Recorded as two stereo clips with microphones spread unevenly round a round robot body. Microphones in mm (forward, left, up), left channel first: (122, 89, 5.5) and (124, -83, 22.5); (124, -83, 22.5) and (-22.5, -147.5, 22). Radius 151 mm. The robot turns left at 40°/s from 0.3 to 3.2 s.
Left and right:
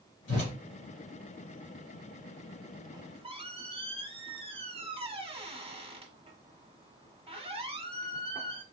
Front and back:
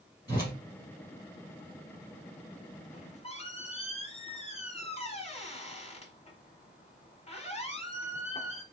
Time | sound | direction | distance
0.3 | a whoosh | 130° left | 1.7 m
2.9 | a squeak | 20° right | 1.2 m